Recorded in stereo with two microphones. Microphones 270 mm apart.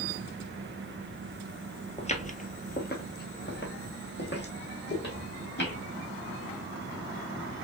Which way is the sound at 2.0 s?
25° left (ahead or behind).